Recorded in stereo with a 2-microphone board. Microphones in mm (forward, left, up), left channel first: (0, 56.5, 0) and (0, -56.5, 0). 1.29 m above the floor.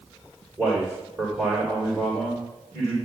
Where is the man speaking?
5° left (ahead or behind), 4 m.